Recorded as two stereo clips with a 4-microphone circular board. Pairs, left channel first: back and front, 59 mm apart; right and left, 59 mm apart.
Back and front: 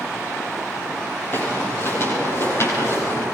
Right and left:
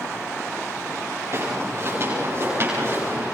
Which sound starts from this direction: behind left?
Footsteps, at 1.3 s.